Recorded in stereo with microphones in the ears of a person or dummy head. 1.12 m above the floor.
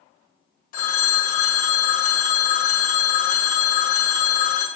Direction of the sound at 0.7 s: 50° left (ahead or behind).